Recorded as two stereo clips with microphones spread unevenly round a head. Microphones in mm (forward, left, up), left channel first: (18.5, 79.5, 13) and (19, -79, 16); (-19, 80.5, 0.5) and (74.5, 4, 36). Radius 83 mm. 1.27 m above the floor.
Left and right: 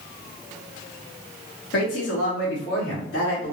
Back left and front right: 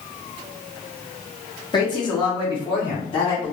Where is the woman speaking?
85° left, 1.4 m; by 3.5 s 95° left, 2 m.